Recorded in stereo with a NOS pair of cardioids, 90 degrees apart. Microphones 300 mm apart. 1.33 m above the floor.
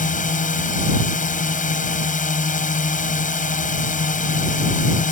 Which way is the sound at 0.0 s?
25° left.